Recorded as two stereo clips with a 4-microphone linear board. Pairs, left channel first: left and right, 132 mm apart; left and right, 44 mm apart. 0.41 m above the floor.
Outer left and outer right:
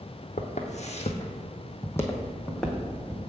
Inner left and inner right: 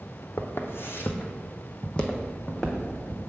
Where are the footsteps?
70° left (ahead or behind), 1.0 m; by 3.2 s 5° right (ahead or behind), 1.6 m.